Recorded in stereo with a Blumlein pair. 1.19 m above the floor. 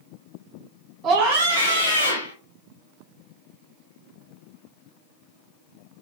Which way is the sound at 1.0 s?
30° right.